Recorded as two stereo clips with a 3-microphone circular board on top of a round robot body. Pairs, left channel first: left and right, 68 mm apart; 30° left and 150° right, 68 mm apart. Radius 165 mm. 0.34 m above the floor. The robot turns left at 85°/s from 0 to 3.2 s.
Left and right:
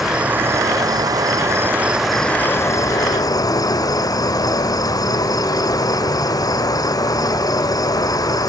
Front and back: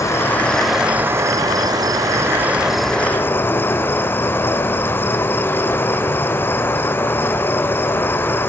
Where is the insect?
5° right, 2 m; by 8.5 s 85° left, 2 m.